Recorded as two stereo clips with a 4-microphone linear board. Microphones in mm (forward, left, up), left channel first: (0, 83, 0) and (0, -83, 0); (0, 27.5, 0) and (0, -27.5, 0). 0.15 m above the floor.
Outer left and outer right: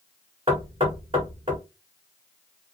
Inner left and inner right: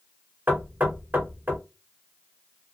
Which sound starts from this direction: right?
Knocking, at 0.5 s.